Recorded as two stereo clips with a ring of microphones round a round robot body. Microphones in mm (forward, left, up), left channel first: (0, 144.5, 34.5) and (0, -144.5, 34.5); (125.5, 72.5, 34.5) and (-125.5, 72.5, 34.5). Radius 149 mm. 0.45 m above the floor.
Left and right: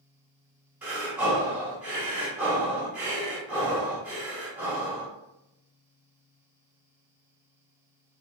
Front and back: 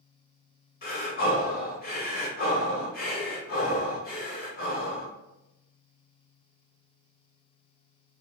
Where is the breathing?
10° right, 1.3 m.